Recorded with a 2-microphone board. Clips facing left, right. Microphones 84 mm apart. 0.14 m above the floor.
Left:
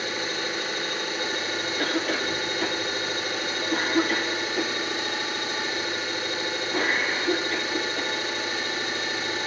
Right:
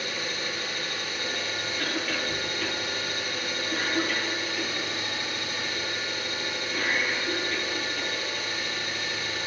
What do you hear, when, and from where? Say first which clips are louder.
0.0 s an engine running: left 3 dB; 30° left (ahead or behind), 5.5 m
1.8 s a cough: left 5 dB; 45° left (ahead or behind), 3 m